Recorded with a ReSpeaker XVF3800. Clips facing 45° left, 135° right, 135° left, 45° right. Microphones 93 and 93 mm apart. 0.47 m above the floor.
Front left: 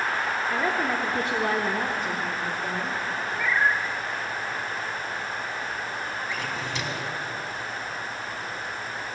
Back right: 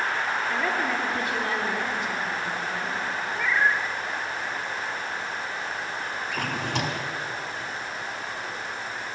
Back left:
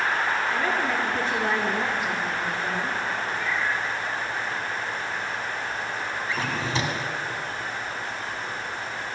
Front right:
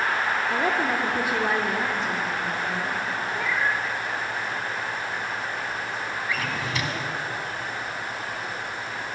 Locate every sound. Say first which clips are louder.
0.5 s a woman speaking: front left 2 dB, front right 1 dB; 30° right, 0.8 m; by 3.0 s 75° left, 1.3 m
3.4 s a cat meowing: even, front right 4 dB; 50° right, 0.7 m
6.3 s a drawer: back right 2 dB, back left 2 dB; 165° right, 0.8 m